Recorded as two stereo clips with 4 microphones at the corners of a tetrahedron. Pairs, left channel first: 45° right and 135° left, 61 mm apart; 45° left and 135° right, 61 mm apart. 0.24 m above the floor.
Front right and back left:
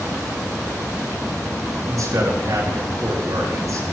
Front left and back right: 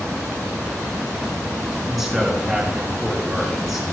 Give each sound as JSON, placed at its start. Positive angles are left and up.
{"t": 1.9, "sound": "a man speaking", "azimuth_deg": 135, "distance_m": 3.5}